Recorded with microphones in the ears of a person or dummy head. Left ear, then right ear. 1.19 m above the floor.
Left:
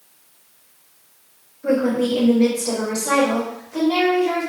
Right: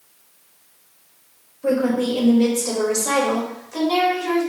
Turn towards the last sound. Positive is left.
turn(degrees=-80)